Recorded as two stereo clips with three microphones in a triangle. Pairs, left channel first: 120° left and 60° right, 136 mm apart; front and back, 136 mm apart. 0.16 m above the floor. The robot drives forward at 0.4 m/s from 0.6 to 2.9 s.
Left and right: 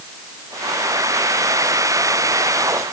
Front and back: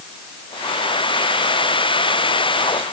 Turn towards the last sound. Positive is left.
No sound to turn to.